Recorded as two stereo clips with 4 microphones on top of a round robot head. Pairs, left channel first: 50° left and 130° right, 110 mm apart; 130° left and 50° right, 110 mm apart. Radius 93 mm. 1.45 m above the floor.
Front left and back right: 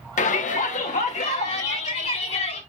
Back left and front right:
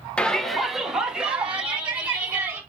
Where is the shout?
50° left, 1.2 m; by 2.6 s 30° left, 4.5 m.